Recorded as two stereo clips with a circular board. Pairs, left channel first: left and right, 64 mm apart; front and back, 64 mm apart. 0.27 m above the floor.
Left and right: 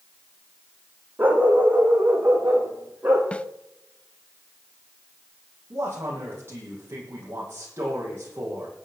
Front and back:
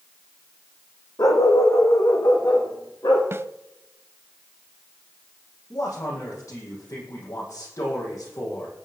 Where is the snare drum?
155° left, 0.6 m.